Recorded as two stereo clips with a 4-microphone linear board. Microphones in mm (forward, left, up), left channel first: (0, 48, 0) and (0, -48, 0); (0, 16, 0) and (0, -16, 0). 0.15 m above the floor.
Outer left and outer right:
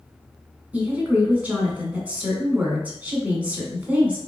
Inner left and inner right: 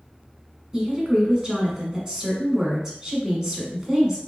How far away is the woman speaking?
About 1.2 m.